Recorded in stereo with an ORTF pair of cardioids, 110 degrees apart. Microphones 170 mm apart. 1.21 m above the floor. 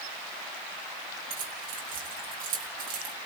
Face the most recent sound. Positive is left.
turn(degrees=-60)